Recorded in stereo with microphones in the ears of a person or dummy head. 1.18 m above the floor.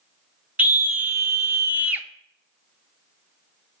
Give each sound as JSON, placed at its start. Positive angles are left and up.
{"t": 0.6, "sound": "a scream", "side_deg": -10, "distance_m": 0.7}